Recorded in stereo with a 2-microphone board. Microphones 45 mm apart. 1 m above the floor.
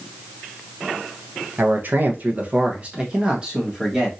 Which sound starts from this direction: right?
A man speaking, at 1.6 s.